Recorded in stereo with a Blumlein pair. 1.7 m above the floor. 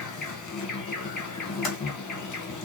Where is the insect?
30° left, 2 m.